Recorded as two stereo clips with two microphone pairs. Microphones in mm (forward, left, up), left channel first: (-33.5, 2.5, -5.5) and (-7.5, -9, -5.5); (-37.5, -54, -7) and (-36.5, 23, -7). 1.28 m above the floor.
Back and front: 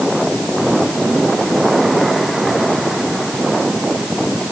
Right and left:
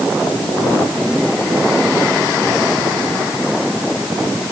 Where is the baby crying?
I don't hear a baby crying.